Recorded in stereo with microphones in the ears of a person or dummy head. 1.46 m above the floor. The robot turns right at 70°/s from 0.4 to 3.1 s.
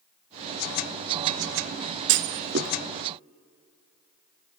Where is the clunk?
60° right (ahead or behind), 0.6 m; by 2.7 s 40° right (ahead or behind), 0.6 m.